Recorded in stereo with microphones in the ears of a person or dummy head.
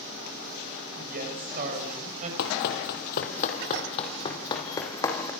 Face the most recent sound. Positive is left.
turn(degrees=20)  # may be behind; listen again after turning